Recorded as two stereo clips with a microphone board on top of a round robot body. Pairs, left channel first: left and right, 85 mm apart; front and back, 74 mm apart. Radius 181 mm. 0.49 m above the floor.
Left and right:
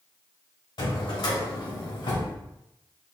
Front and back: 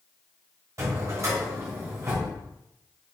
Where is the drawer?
130° left, 1.0 m.